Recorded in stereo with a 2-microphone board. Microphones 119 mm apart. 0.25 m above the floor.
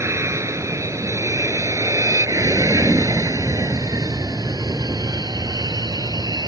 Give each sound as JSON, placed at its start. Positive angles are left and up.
{"t": 0.0, "sound": "an aircraft", "side_deg": -25}